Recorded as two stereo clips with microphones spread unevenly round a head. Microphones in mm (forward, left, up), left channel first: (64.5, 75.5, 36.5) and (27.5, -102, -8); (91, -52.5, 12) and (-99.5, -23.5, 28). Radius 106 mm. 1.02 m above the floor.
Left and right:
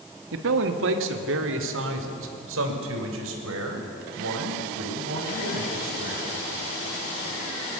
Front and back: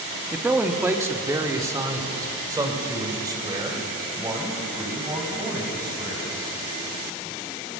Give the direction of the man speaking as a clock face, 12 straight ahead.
4 o'clock.